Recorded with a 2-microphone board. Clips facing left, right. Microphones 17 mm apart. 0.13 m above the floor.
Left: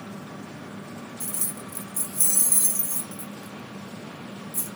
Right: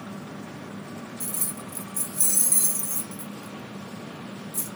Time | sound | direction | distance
1.2 | keys jangling | 5° left (ahead or behind) | 0.9 m